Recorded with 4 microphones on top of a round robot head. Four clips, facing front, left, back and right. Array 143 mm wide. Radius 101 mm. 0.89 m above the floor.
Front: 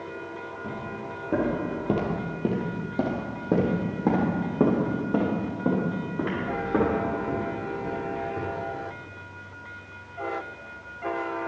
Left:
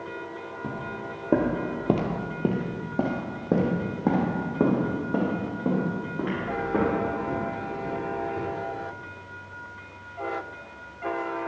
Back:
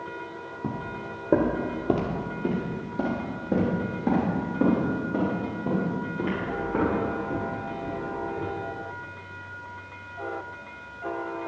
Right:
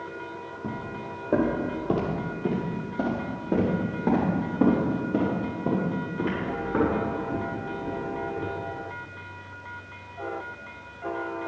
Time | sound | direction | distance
0.6 | footsteps | 165° left | 1.2 m